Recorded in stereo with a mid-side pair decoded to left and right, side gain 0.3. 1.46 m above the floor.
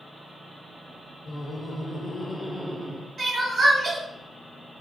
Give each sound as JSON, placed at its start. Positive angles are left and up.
{"t": 1.3, "sound": "laughter", "azimuth_deg": 65, "distance_m": 1.3}
{"t": 3.2, "sound": "crying", "azimuth_deg": -60, "distance_m": 1.7}